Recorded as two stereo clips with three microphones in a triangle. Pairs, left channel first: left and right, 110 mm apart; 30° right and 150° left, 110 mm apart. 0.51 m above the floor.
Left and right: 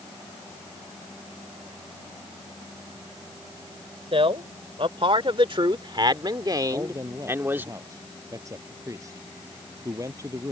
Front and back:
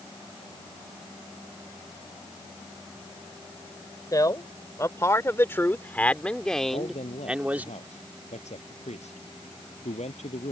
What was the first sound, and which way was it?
A man speaking, 80° right.